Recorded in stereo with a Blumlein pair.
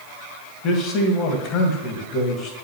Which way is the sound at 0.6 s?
35° left.